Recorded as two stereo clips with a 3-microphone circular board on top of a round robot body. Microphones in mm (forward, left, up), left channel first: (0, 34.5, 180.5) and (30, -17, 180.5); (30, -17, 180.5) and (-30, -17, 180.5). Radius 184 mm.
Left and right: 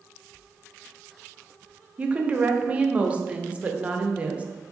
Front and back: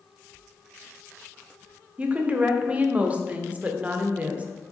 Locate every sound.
2.0 s a woman speaking: 120° right, 0.8 m